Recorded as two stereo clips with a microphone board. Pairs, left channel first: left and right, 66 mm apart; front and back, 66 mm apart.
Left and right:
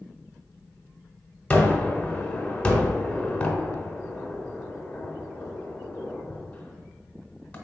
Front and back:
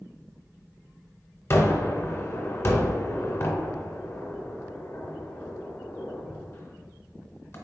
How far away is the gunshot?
About 1.0 m.